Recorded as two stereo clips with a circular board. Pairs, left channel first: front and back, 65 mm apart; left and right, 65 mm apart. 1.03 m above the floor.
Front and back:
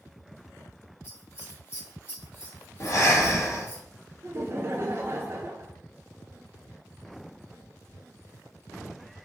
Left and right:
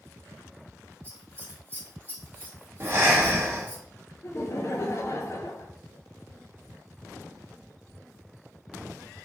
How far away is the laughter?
About 0.5 m.